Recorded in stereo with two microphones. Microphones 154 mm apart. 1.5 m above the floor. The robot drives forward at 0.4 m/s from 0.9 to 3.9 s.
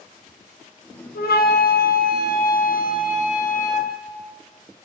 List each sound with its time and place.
1.1 s a flute: 80° left, 1.2 m; by 3.9 s 50° left (ahead or behind), 1.6 m